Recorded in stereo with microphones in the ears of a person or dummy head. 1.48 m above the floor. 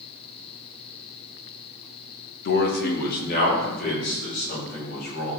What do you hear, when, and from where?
2.5 s a man speaking: 60° left (ahead or behind), 1.3 m; by 5.4 s 55° left (ahead or behind), 6 m